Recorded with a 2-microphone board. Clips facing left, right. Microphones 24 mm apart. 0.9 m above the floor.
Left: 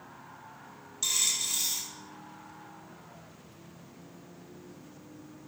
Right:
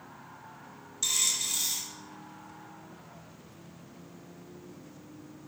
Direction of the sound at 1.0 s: 5° left (ahead or behind).